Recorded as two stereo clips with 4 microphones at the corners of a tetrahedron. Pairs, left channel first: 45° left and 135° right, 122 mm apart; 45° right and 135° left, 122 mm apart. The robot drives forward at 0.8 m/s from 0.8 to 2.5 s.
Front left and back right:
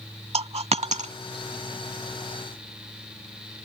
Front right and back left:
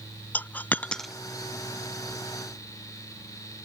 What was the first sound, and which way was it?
A dropped coin, 115° right.